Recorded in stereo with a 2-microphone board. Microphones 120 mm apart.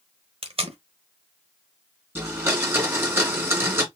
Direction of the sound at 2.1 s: 15° right (ahead or behind).